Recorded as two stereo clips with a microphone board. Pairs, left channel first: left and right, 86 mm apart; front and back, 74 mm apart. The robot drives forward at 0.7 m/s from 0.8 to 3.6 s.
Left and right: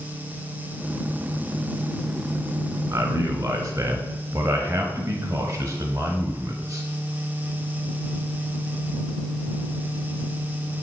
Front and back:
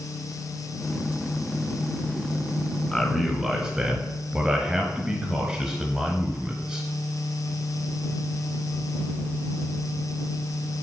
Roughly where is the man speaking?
Right.